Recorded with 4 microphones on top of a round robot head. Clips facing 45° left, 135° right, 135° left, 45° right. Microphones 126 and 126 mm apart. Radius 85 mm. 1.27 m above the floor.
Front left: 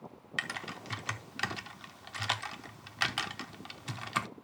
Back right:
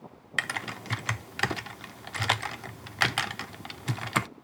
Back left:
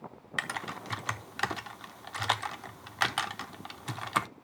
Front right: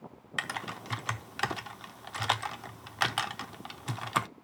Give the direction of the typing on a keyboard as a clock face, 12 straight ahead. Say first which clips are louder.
Back right 6 dB, even; 4 o'clock.